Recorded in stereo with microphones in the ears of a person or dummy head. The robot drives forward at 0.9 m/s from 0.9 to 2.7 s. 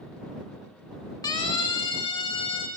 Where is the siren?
20° left (ahead or behind), 3.5 m; by 2.7 s 30° left (ahead or behind), 6 m.